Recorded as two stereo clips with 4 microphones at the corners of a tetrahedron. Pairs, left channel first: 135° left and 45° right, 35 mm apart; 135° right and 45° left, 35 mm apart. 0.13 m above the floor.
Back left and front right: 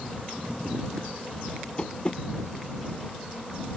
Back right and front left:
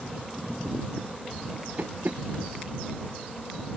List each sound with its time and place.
1.8 s tapping: 75° left